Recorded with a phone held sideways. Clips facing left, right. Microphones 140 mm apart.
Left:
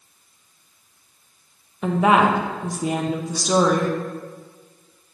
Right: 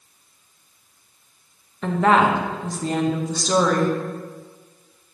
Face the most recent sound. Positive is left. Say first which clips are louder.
# even
turn(degrees=10)  # may be behind; listen again after turning